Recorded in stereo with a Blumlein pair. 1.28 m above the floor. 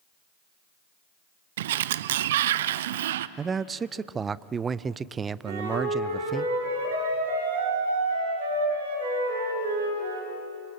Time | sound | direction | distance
1.6 | a sliding door | 55° right | 0.5 m
3.4 | a man speaking | 20° right | 0.5 m
5.5 | a flute | 60° right | 7 m